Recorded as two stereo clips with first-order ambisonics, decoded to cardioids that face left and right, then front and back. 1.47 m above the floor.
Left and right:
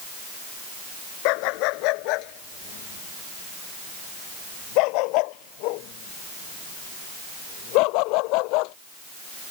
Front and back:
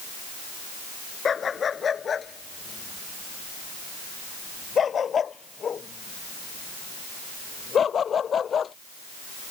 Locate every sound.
1.2 s a dog barking: 70° left; by 8.7 s 65° left